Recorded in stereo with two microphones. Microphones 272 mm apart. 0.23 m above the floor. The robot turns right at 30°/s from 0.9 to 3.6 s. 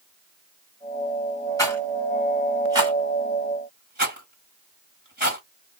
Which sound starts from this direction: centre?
A rattle, at 1.6 s.